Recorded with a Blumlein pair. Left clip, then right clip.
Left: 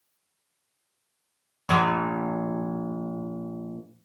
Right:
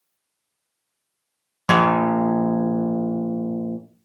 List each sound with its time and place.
1.7 s a guitar: 60° right, 0.5 m